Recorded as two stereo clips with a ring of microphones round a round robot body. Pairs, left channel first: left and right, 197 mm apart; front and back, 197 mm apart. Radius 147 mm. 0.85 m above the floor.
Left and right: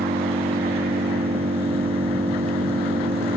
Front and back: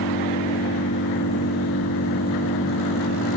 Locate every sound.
0.0 s an engine running: 30° right